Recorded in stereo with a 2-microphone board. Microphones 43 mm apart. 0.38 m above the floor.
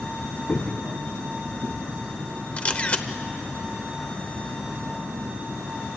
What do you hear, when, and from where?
0.5 s footsteps: 35° left (ahead or behind), 1.8 m; by 1.8 s 45° left (ahead or behind), 3 m
2.6 s a camera shutter: 30° left (ahead or behind), 0.9 m